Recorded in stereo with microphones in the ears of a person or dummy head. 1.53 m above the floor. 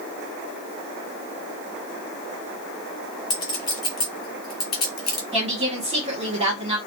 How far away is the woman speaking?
About 1.4 m.